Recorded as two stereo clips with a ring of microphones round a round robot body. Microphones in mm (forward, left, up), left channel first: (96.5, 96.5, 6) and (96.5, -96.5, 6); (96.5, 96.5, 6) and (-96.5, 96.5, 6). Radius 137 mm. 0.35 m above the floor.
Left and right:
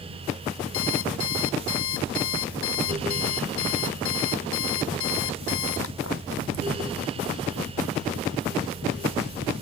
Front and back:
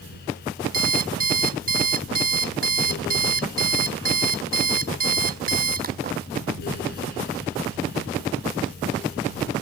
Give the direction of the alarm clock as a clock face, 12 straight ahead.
7 o'clock.